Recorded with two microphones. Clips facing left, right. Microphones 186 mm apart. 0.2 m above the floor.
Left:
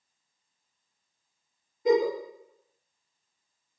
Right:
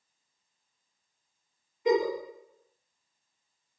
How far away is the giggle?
About 1.5 m.